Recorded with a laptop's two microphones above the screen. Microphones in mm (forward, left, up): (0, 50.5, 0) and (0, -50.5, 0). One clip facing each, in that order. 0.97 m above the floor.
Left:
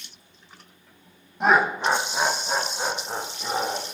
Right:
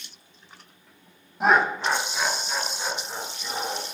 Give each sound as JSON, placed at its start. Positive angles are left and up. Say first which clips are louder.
{"t": 1.4, "sound": "laughter", "louder": "left 1 dB", "side_deg": -5, "distance_m": 0.6}